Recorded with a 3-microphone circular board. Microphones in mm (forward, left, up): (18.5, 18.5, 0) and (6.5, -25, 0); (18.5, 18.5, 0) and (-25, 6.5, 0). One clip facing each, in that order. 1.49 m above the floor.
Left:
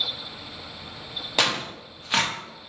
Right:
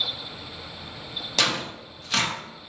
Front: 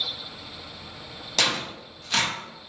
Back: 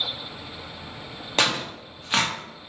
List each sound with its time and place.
1.4 s tearing paper: 145° left, 1.0 m